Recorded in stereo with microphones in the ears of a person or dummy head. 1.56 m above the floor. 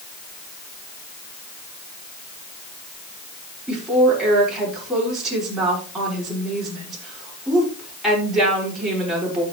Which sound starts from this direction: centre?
A woman speaking, at 3.7 s.